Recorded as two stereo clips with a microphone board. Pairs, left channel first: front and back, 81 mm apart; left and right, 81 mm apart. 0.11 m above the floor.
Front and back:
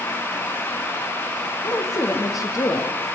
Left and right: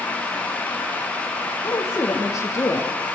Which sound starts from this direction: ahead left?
A woman speaking, at 1.6 s.